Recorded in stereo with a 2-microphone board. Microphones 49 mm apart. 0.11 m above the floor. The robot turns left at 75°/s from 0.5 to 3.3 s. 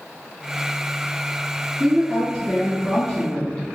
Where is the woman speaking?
175° right, 1.6 m; by 3.6 s 75° left, 1.6 m.